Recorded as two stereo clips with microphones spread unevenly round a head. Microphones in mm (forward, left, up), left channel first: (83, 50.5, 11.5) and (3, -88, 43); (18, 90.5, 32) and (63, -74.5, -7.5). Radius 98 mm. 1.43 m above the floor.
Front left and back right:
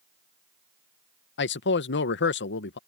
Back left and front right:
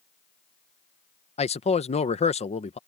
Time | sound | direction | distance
1.4 | a man speaking | 50° left | ?